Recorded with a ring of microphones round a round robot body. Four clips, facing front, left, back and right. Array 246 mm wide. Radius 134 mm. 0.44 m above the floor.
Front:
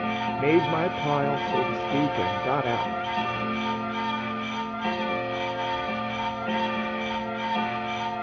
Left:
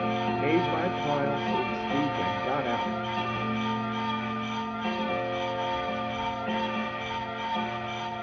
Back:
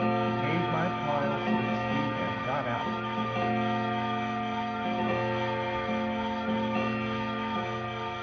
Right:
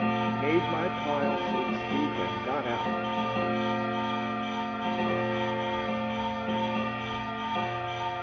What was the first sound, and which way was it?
A woman speaking, straight ahead.